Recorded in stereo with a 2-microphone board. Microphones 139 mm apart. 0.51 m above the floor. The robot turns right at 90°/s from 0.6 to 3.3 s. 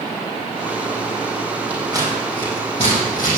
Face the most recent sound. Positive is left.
turn(degrees=85)